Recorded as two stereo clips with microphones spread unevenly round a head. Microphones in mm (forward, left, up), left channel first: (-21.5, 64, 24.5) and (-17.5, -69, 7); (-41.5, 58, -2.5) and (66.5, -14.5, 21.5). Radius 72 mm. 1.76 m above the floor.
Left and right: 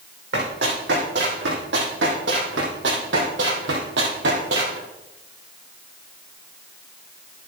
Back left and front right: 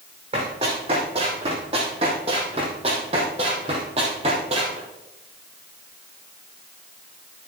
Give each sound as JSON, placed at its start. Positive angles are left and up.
{"t": 0.3, "sound": "running footsteps", "azimuth_deg": -85, "distance_m": 6.0}